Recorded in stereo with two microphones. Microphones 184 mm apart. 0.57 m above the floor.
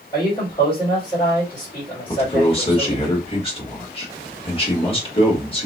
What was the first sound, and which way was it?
A man speaking, 20° left (ahead or behind).